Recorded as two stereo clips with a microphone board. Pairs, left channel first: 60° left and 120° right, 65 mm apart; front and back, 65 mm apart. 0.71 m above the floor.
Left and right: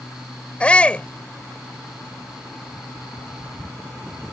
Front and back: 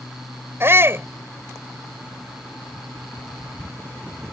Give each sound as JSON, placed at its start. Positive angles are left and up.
{"t": 0.6, "sound": "a shout", "azimuth_deg": 130}